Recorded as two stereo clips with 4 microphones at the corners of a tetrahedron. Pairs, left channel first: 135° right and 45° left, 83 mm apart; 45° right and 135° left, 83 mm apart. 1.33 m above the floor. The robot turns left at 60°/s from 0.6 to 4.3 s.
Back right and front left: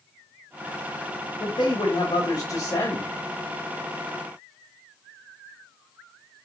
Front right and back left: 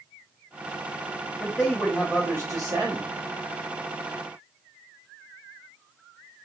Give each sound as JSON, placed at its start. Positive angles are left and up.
{"t": 1.4, "sound": "a man speaking", "azimuth_deg": -115, "distance_m": 2.5}